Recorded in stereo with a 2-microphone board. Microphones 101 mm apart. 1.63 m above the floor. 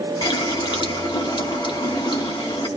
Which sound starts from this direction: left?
A running tap, at 0.2 s.